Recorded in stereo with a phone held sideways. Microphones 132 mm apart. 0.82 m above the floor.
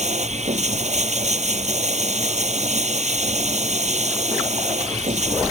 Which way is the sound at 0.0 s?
65° right (ahead or behind).